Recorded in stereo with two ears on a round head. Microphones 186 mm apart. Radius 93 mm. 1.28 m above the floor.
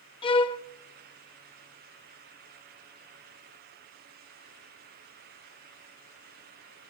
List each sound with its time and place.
0.2 s a violin: 25° left (ahead or behind), 0.6 m